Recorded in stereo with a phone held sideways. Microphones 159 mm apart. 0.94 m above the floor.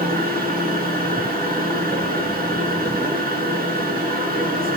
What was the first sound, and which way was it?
A machine running, 75° right (ahead or behind).